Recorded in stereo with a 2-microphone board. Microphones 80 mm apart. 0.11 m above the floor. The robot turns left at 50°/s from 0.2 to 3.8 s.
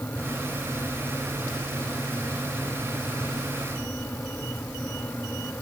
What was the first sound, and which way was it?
Only background noise.